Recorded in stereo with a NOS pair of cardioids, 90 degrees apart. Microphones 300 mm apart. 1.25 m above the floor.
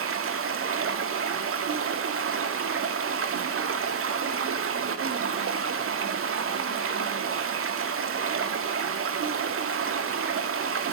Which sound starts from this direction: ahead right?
Running water, at 0.0 s.